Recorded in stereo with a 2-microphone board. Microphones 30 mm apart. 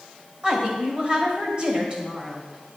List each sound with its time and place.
0.4 s a woman speaking: 35° right (ahead or behind), 2.5 m